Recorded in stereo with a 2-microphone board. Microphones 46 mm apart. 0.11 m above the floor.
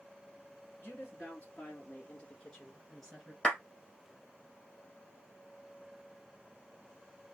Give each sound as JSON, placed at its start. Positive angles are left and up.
{"t": 0.8, "sound": "a woman speaking", "side_deg": 40, "distance_m": 2.0}
{"t": 3.4, "sound": "a clap", "side_deg": 20, "distance_m": 2.0}